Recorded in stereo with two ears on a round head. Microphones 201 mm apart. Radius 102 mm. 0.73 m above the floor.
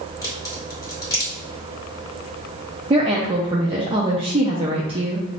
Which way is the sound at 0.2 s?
15° left (ahead or behind).